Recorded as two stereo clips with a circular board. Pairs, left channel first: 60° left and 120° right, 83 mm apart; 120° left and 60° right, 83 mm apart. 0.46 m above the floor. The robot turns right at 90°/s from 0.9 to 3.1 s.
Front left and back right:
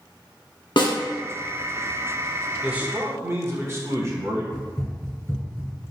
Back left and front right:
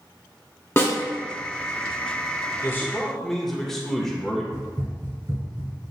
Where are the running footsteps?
15° right, 1.9 m; by 5.7 s 30° right, 2.5 m.